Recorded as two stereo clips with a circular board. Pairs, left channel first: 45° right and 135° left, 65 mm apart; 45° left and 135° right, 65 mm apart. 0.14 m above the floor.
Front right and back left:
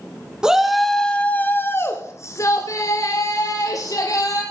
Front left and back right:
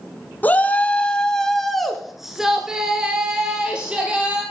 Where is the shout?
70° left, 1.2 m; by 4.4 s 65° right, 3.5 m.